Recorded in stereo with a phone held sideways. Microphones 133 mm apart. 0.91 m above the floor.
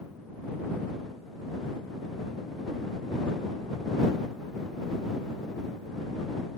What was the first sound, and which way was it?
Only background noise.